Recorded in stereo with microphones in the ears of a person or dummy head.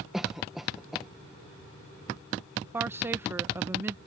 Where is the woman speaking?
15° right (ahead or behind).